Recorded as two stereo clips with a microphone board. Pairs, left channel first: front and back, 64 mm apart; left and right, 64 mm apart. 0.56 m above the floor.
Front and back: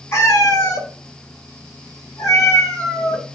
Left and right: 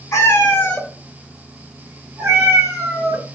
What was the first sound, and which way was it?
A cat meowing, 45° left.